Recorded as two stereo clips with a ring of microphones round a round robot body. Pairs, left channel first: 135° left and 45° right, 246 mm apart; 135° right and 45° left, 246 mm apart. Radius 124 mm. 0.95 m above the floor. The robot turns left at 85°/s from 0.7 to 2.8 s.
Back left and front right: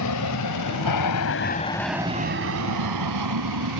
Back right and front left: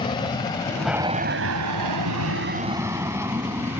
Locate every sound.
0.0 s an aircraft: 150° left; by 3.8 s 35° right